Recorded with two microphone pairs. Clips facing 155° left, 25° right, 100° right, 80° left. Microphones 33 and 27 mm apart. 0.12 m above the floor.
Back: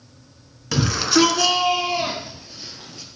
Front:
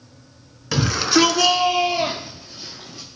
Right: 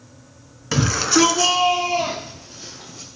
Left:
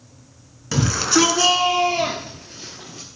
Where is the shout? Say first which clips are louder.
Front 1 dB, right 1 dB; 95° right, 1.1 m; by 3.1 s 70° left, 2 m.